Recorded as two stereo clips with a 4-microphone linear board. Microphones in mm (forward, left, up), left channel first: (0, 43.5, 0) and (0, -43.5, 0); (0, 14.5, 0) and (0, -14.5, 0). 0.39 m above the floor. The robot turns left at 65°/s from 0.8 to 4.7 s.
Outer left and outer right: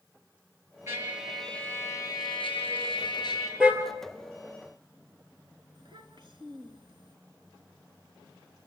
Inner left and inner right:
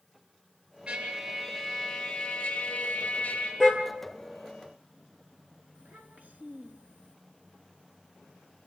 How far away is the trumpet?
About 7.5 m.